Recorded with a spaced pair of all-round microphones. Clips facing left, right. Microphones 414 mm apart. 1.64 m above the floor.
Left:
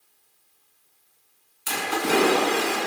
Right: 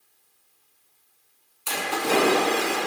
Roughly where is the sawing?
No sawing in this recording.